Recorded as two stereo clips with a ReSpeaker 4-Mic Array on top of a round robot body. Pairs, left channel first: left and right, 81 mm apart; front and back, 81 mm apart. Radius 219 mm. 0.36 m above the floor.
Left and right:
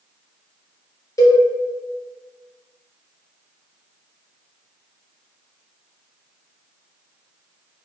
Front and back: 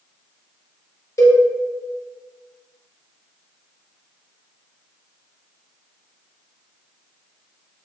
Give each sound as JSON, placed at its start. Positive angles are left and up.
{"t": 1.2, "sound": "a cowbell", "azimuth_deg": 45, "distance_m": 1.1}